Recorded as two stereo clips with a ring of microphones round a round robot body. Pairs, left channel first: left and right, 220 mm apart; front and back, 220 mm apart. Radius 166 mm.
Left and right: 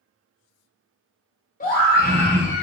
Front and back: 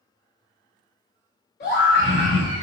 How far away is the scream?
About 2 m.